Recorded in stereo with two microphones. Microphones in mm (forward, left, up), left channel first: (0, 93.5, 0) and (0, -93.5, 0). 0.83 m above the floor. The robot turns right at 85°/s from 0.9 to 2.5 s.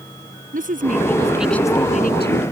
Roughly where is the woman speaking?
Ahead right.